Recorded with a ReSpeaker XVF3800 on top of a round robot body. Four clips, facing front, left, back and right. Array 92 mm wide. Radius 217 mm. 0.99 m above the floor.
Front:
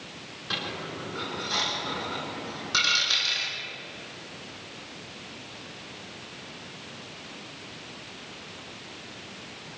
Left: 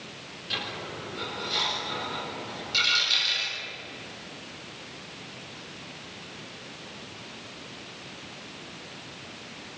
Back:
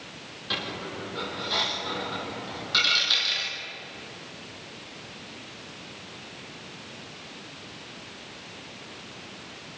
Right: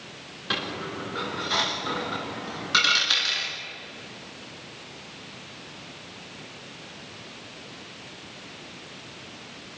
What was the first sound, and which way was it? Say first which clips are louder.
A dropped coin: right 5 dB, back 1 dB; 75° right.